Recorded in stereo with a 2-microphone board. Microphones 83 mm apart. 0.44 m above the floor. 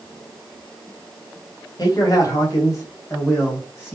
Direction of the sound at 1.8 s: 50° left (ahead or behind).